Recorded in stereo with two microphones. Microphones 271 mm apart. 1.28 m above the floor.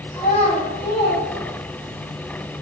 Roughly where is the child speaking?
Left.